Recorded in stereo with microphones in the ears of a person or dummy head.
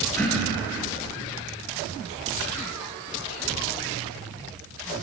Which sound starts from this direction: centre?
Throat clearing, at 0.2 s.